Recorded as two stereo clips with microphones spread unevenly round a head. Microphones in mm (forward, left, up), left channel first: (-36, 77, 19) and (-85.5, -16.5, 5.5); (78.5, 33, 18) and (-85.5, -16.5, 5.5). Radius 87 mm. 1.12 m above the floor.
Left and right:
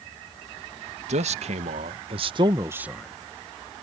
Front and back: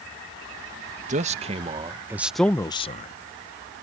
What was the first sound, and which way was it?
A man speaking, 115° right.